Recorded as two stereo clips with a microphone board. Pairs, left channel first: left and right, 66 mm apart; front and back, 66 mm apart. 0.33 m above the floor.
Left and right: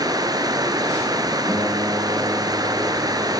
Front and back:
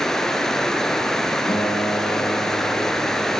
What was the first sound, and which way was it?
Running water, 85° right.